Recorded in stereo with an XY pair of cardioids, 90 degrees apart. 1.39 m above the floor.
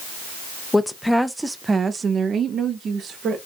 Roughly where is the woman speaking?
Ahead.